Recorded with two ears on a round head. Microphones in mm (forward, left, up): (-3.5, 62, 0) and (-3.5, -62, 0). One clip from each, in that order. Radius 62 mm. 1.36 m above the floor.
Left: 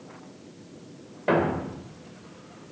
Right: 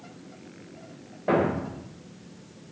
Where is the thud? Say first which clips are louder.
Even; 60° left (ahead or behind), 2.5 m.